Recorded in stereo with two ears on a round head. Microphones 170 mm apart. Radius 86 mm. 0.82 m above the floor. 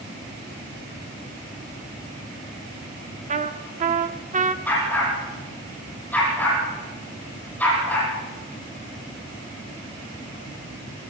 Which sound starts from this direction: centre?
A dog barking, at 4.7 s.